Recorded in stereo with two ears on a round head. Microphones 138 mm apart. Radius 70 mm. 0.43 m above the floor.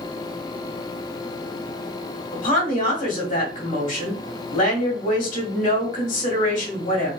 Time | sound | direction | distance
2.3 | a woman speaking | 50° left (ahead or behind) | 1.7 m